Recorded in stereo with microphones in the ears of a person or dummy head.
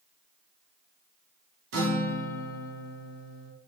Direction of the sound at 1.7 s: 65° right (ahead or behind).